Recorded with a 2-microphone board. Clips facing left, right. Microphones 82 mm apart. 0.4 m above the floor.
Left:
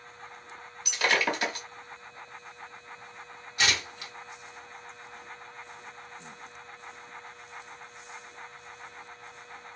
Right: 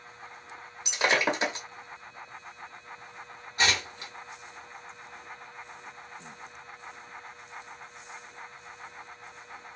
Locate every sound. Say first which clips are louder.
0.8 s breaking glass: right 1 dB; 20° right (ahead or behind), 0.7 m
3.6 s tearing paper: right 2 dB; 35° right (ahead or behind), 2 m